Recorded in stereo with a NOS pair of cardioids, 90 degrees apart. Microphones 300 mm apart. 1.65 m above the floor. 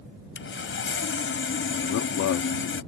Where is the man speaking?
65° left.